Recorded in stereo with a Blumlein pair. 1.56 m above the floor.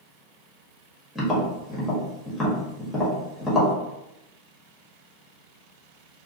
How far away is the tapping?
About 1.3 m.